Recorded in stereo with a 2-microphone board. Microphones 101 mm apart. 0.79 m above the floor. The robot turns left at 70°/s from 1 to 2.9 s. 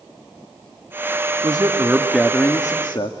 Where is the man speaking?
130° right, 1.0 m; by 3.1 s 125° left, 1.0 m.